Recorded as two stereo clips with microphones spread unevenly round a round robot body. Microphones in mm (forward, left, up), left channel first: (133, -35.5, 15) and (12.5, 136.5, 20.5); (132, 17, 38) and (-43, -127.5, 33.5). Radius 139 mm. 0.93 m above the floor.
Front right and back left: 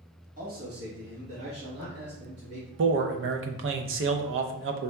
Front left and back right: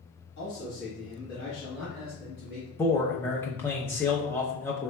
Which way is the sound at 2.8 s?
120° left.